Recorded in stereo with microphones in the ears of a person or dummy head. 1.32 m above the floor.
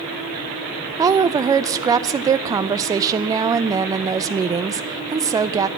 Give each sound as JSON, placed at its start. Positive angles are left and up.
{"t": 1.0, "sound": "a woman speaking", "side_deg": -20, "distance_m": 0.5}